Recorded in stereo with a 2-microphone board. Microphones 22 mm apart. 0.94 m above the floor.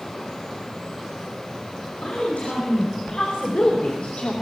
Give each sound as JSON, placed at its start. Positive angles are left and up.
{"t": 2.0, "sound": "a woman speaking", "side_deg": 85, "distance_m": 5.5}